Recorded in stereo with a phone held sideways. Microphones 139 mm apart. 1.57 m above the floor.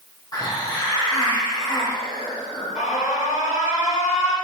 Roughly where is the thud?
No thud in this recording.